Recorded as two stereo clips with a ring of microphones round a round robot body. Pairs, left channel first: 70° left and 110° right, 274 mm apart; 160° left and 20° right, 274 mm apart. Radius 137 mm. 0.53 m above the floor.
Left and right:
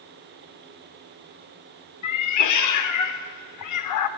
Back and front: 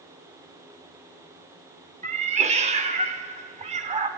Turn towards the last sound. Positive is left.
turn(degrees=45)